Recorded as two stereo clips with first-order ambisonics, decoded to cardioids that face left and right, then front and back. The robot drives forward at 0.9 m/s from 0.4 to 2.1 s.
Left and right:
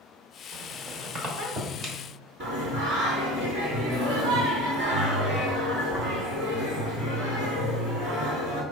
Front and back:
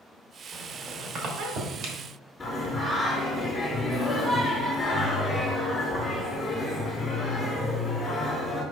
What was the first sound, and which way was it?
A squeak, 100° right.